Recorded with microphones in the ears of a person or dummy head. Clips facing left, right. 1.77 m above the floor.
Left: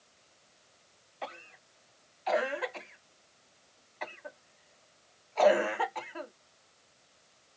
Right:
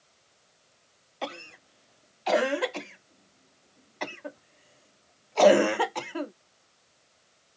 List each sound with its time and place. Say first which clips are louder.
1.2 s a cough: right 6 dB; 50° right (ahead or behind)